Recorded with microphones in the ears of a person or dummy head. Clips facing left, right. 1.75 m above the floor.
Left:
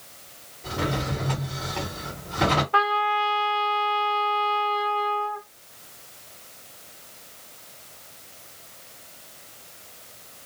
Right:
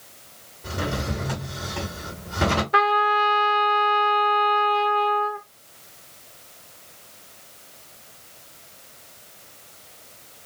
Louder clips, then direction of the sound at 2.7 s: Right 3 dB; 35° right (ahead or behind).